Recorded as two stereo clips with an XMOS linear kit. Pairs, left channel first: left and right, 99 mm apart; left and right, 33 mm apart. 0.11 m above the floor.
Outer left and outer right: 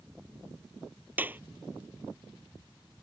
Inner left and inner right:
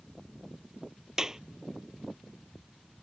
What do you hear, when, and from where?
1.2 s a clap: 20° right (ahead or behind)